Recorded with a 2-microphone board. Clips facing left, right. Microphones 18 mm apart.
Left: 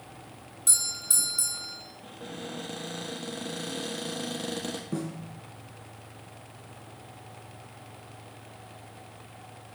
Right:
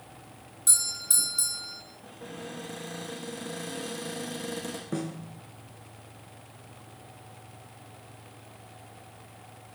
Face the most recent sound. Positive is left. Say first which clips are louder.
# right 3 dB
turn(degrees=-25)  # may be behind; listen again after turning